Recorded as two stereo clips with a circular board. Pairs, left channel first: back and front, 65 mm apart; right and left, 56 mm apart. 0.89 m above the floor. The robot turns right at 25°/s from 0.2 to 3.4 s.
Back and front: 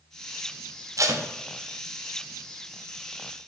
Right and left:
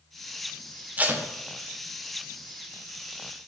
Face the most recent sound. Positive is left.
turn(degrees=90)